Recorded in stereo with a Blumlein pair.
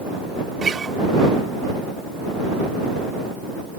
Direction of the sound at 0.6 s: 15° right.